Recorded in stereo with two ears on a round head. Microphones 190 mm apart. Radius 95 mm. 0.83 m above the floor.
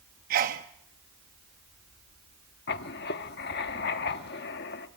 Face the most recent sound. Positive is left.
turn(degrees=55)  # may be behind; listen again after turning